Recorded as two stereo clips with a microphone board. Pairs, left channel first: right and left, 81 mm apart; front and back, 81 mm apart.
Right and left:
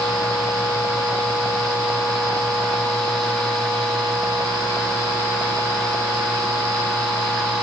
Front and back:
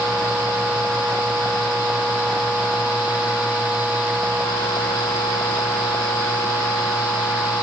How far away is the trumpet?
No trumpet in this recording.